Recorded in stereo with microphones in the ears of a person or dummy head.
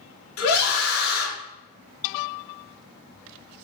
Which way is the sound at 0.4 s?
85° left.